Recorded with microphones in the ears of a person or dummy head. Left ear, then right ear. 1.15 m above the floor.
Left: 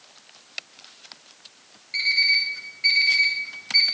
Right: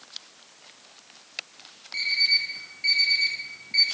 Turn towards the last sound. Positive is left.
turn(degrees=30)  # may be behind; listen again after turning